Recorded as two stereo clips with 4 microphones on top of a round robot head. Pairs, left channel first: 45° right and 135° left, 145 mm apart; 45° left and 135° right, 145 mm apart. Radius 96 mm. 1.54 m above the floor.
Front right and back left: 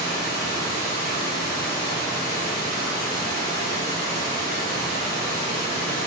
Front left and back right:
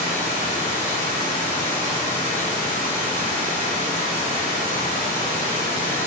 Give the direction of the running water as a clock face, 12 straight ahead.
12 o'clock.